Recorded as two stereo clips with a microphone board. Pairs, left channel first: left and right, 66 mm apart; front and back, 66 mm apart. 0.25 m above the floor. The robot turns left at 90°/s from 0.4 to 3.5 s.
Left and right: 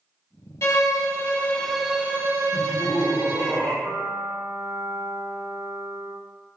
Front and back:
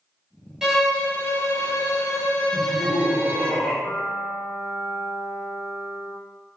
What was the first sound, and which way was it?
A violin, 105° left.